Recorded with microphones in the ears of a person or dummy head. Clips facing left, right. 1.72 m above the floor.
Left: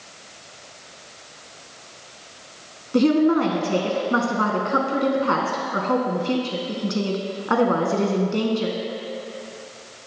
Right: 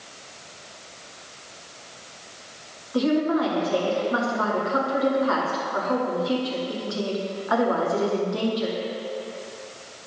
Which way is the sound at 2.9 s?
50° left (ahead or behind).